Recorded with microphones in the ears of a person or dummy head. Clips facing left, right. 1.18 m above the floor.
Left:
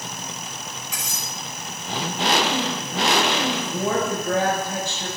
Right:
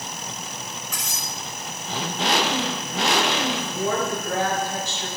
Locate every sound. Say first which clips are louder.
0.9 s cutlery clinking: even; 10° left (ahead or behind), 5.5 m
3.5 s a woman speaking: left 1 dB; 75° left (ahead or behind), 5 m